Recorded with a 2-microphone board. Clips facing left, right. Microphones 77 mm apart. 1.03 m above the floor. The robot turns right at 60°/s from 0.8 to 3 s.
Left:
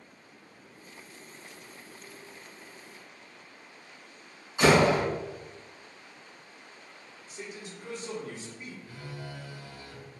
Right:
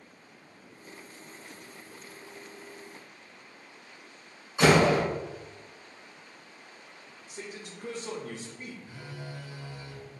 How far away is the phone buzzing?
About 0.6 m.